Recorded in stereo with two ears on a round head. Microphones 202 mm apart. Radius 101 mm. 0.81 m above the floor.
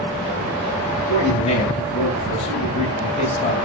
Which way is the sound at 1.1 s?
40° left (ahead or behind).